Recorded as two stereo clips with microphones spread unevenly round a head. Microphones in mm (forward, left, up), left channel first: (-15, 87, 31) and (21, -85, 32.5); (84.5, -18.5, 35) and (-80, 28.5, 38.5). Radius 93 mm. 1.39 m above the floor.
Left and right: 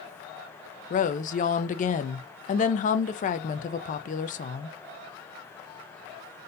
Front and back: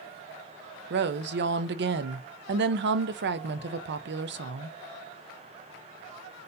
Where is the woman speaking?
150° left, 0.6 m.